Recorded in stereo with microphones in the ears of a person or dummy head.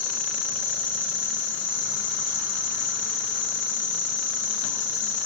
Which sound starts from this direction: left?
An insect, at 0.0 s.